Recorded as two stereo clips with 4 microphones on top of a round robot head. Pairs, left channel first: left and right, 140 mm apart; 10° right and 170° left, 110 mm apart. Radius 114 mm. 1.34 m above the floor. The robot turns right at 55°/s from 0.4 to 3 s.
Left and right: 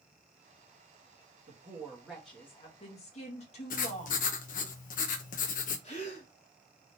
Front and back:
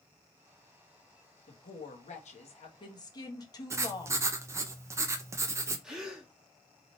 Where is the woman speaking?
40° right, 1.7 m; by 4.7 s 40° left, 1.7 m.